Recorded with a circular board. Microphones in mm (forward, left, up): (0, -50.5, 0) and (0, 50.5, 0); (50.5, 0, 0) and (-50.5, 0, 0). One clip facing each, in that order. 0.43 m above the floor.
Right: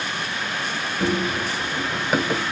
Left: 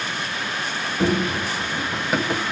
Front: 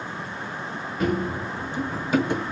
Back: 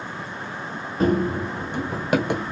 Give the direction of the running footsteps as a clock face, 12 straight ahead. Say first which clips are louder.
Left 2 dB, back 5 dB; 7 o'clock.